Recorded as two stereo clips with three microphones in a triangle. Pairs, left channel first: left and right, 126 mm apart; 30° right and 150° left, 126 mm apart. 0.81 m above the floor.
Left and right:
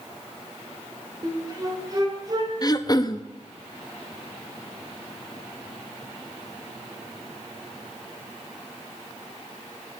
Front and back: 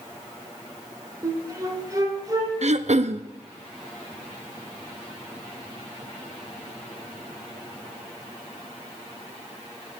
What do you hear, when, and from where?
1.2 s a flute: 145° right, 2.5 m
2.6 s throat clearing: 145° left, 0.6 m